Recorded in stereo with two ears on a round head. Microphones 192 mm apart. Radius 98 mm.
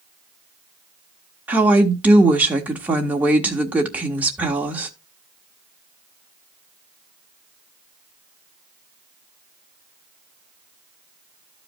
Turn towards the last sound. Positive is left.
turn(degrees=-10)  # may be behind; listen again after turning